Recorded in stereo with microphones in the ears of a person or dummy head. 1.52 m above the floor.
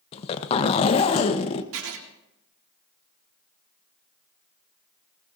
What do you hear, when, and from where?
0.1 s a zipper: 40° left (ahead or behind), 1.0 m
1.7 s writing: 75° right (ahead or behind), 2.5 m